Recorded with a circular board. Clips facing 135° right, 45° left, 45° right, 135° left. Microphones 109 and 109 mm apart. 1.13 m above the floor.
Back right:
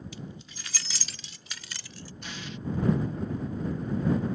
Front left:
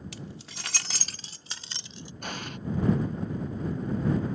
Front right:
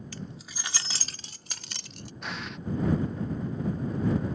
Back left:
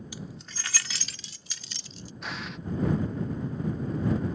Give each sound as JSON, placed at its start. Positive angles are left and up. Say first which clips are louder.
{"t": 0.1, "sound": "keys jangling", "louder": "even, even", "azimuth_deg": 60}
{"t": 2.2, "sound": "an explosion", "louder": "front left 4 dB, even", "azimuth_deg": 45}